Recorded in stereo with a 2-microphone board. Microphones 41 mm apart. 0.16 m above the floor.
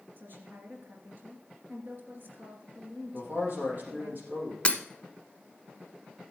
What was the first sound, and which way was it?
A woman speaking, 55° right (ahead or behind).